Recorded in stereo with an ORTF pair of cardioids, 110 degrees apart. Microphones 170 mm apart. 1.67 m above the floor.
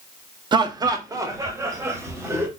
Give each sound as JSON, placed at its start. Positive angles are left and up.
{"t": 0.5, "sound": "laughter", "azimuth_deg": -25, "distance_m": 0.6}